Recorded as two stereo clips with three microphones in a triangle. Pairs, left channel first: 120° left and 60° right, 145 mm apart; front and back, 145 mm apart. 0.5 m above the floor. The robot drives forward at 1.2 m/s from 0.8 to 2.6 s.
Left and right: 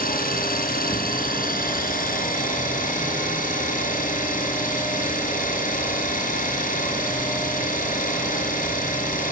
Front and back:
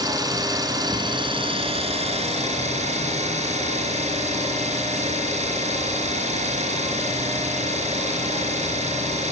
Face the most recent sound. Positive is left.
turn(degrees=140)